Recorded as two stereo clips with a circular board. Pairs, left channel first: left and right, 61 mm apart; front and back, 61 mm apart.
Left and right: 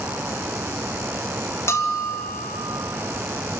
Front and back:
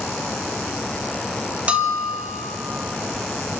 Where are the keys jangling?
I don't hear keys jangling.